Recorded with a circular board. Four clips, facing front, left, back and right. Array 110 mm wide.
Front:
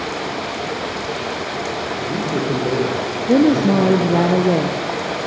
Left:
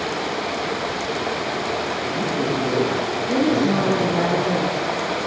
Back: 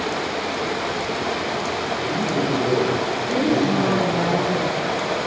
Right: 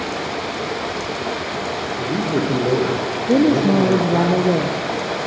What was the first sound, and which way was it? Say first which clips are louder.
A man speaking: right 3 dB, front 1 dB; 70° right.